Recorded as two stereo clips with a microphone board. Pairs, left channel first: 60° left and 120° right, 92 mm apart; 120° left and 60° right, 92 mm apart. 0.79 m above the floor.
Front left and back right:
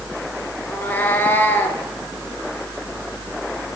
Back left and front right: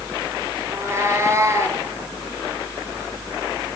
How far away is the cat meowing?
About 1.2 m.